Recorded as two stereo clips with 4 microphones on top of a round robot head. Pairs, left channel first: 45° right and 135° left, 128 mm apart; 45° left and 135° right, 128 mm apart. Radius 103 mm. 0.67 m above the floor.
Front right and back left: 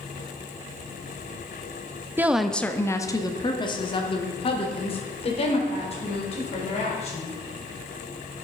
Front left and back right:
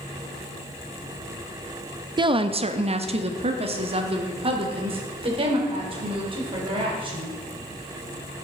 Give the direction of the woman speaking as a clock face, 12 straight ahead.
5 o'clock.